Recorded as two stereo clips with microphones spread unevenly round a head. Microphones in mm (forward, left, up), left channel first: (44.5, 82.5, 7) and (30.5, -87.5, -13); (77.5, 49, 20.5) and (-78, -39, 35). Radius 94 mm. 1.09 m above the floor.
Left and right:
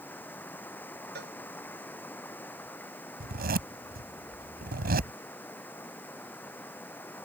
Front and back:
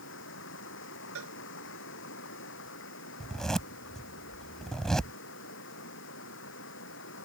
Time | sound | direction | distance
0.0 | running water | 5° left | ?
1.1 | a cowbell | 140° right | ?
3.2 | a zipper | 60° right | ?